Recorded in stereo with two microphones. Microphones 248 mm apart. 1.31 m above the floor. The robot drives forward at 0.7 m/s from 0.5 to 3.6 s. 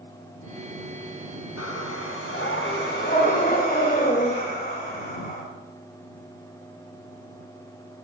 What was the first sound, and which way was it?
Breathing, 80° left.